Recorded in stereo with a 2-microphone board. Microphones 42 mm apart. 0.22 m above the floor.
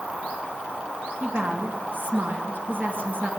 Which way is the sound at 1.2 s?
55° right (ahead or behind).